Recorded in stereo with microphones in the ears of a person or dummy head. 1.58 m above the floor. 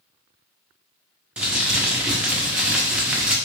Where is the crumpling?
10° right (ahead or behind), 0.5 m.